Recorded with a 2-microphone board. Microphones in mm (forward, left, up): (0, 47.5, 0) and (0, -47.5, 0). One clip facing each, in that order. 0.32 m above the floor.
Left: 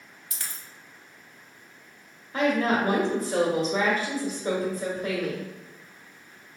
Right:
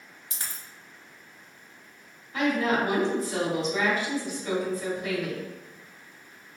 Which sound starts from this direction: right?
A dropped coin, at 0.3 s.